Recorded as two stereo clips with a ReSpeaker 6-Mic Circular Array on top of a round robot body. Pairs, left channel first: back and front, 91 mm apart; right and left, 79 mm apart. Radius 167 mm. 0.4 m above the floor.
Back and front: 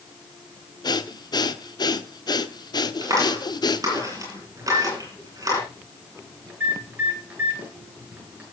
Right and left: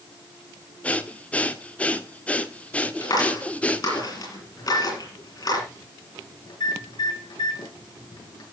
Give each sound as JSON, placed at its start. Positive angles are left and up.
{"t": 0.8, "sound": "breathing", "azimuth_deg": -160, "distance_m": 1.5}
{"t": 3.0, "sound": "a clap", "azimuth_deg": -55, "distance_m": 8.5}
{"t": 4.6, "sound": "a microwave", "azimuth_deg": -70, "distance_m": 6.5}